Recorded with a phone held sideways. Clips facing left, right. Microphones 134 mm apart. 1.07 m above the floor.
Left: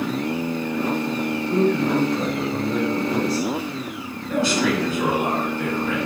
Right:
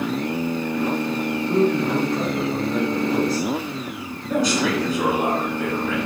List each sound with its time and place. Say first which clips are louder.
1.5 s a man speaking: even; 45° right (ahead or behind), 2.0 m
4.3 s a man speaking: even; 40° right (ahead or behind), 2.0 m